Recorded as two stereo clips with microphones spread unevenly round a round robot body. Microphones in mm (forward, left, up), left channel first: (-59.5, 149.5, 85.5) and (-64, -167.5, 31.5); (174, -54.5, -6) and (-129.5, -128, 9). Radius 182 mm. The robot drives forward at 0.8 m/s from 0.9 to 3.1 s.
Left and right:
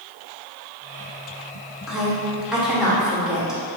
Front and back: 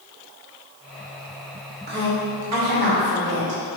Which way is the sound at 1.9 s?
160° right.